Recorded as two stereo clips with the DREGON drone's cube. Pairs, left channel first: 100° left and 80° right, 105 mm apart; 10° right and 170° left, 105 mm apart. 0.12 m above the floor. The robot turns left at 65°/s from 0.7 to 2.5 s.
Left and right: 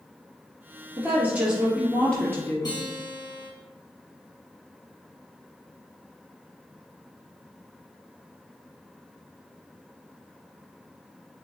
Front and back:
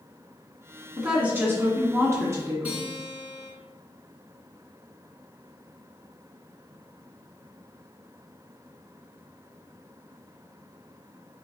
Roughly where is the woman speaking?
Behind right.